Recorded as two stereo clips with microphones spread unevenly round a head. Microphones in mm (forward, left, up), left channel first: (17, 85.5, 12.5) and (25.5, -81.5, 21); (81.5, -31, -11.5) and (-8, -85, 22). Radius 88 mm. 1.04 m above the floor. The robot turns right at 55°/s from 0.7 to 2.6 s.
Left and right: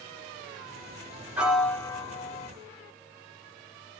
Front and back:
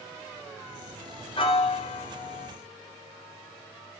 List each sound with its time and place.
1.4 s a piano: 5° right, 1.5 m; by 2.5 s 55° left, 1.5 m